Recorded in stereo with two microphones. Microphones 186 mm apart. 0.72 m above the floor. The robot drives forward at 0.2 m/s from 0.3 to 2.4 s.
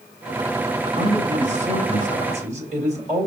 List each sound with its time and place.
1.0 s a man speaking: 45° right (ahead or behind), 3.5 m; by 3.3 s 40° right (ahead or behind), 4 m